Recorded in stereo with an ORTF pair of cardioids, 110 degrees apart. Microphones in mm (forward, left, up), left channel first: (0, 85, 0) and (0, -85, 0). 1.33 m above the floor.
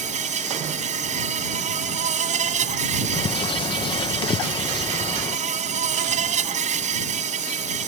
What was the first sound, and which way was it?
An insect, 45° right.